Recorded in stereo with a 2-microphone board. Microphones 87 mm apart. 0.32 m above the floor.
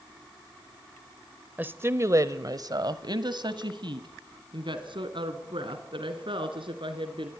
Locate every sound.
1.6 s a woman speaking: 20° right (ahead or behind), 0.9 m; by 7.3 s 75° right (ahead or behind), 4 m